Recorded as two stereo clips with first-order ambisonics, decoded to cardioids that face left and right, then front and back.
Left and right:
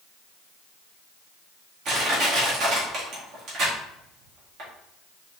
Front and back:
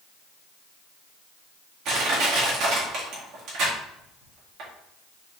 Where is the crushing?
135° right, 1.8 m.